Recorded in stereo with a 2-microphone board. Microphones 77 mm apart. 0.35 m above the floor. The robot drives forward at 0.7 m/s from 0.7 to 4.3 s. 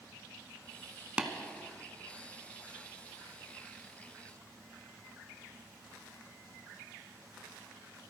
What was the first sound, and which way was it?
Tapping, 15° right (ahead or behind).